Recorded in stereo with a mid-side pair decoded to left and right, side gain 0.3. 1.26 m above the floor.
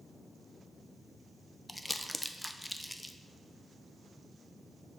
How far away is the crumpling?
About 0.6 m.